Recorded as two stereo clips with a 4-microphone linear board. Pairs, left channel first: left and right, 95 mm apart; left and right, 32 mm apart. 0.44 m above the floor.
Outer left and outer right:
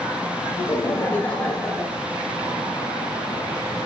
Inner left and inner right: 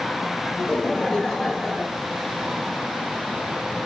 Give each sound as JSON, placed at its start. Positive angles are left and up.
{"t": 0.6, "sound": "laughter", "side_deg": 35, "distance_m": 1.7}